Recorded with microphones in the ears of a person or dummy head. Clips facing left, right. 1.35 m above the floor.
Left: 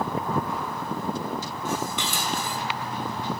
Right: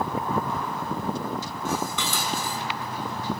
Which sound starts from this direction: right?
Dishes clattering, at 1.6 s.